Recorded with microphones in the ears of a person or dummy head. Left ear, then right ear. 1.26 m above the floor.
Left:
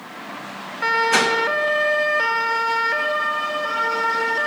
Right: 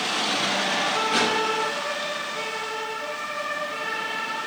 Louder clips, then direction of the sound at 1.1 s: Left 4 dB; 50° left (ahead or behind).